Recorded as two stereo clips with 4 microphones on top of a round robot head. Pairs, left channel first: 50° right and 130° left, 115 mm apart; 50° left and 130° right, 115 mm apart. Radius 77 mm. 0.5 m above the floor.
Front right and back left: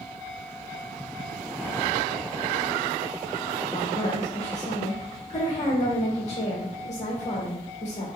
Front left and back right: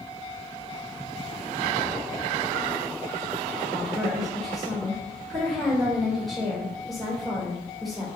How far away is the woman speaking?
About 2 m.